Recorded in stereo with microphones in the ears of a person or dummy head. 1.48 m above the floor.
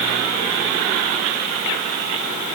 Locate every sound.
Only background noise.